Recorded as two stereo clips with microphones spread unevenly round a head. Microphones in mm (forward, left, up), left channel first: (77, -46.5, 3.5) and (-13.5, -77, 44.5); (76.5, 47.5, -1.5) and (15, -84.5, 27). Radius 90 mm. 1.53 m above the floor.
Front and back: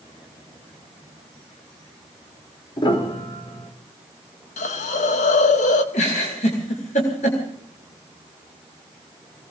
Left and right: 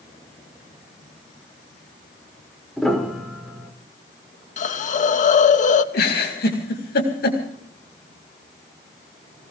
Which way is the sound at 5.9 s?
55° left.